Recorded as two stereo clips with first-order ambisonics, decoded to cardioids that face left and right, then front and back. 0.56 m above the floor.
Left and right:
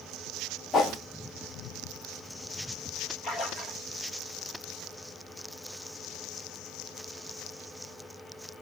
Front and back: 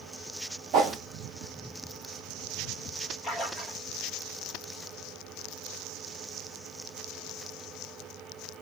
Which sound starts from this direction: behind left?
A whoosh, at 0.7 s.